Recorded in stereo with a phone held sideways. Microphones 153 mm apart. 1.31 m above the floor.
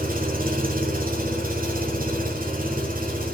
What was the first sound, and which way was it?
An engine running, 70° right (ahead or behind).